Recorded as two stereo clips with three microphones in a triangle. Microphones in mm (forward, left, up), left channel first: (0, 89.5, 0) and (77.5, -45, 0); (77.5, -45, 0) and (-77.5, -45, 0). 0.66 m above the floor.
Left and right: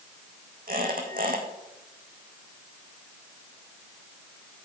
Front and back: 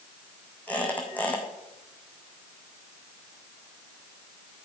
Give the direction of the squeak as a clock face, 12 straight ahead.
3 o'clock.